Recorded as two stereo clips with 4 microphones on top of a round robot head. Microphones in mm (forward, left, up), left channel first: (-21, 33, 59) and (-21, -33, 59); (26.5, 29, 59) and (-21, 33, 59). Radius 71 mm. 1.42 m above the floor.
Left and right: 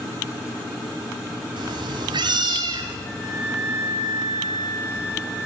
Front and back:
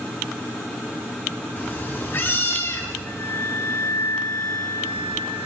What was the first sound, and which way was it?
A cat meowing, 70° right.